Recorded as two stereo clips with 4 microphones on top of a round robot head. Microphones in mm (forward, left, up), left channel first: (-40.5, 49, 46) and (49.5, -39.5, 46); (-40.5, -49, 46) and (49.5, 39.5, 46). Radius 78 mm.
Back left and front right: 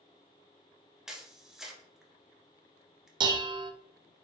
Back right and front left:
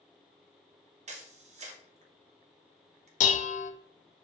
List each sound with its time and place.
1.1 s a camera shutter: 40° left, 1.2 m
3.2 s dishes clattering: 105° right, 0.5 m